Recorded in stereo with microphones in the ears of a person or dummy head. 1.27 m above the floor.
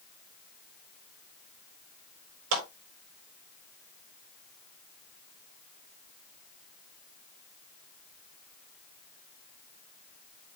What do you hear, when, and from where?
2.5 s a clap: 70° right (ahead or behind), 5.5 m